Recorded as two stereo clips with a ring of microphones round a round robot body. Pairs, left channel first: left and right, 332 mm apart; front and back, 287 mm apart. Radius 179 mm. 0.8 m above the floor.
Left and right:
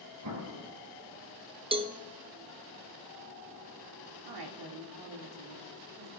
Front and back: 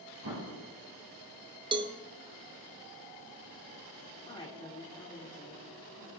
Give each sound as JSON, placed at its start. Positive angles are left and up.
{"t": 0.2, "sound": "an explosion", "azimuth_deg": -130, "distance_m": 3.0}
{"t": 1.7, "sound": "a cowbell", "azimuth_deg": -135, "distance_m": 0.8}
{"t": 4.2, "sound": "a woman speaking", "azimuth_deg": -75, "distance_m": 1.8}